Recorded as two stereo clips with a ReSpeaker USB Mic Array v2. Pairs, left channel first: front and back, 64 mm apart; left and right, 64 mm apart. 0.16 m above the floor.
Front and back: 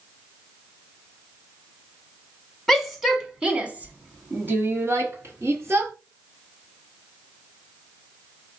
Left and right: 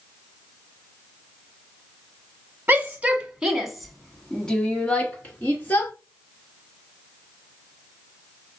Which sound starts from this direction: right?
A shout, at 2.7 s.